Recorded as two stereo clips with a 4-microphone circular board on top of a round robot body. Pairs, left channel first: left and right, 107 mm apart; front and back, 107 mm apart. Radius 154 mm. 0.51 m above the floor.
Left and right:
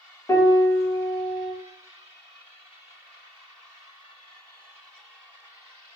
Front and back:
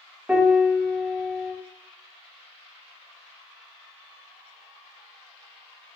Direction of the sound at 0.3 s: 105° left.